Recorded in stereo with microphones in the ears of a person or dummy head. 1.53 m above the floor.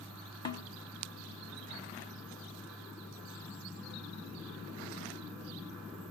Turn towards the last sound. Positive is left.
turn(degrees=20)  # may be behind; listen again after turning